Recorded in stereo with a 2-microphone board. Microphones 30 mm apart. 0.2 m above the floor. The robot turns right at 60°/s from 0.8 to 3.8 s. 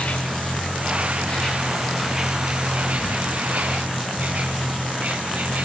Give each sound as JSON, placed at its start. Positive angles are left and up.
{"t": 0.0, "sound": "an insect", "azimuth_deg": 105, "distance_m": 4.5}